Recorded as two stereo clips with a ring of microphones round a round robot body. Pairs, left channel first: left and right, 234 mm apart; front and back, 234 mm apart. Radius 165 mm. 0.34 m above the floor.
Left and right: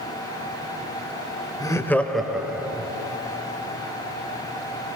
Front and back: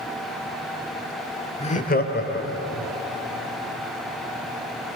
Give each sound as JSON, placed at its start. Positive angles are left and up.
{"t": 1.6, "sound": "laughter", "azimuth_deg": 30, "distance_m": 1.3}